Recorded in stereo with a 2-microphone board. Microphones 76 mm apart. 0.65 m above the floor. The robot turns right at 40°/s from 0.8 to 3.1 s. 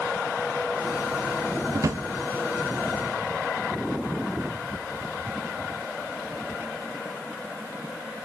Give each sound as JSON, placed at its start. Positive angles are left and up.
{"t": 1.7, "sound": "a drawer", "side_deg": -40, "distance_m": 0.6}